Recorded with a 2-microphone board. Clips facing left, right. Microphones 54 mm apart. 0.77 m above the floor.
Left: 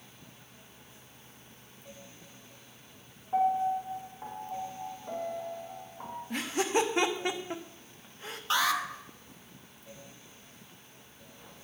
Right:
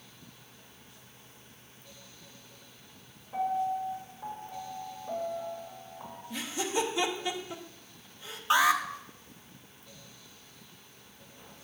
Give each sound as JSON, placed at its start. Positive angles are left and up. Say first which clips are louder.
{"t": 3.3, "sound": "a piano", "louder": "left 3 dB", "side_deg": 60, "distance_m": 2.0}
{"t": 6.3, "sound": "laughter", "louder": "left 3 dB", "side_deg": 45, "distance_m": 0.8}
{"t": 8.5, "sound": "an alarm", "louder": "right 4 dB", "side_deg": -20, "distance_m": 0.6}